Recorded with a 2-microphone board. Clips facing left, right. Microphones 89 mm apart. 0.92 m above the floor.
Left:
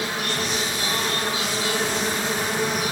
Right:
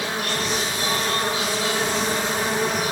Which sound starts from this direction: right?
An insect, at 0.0 s.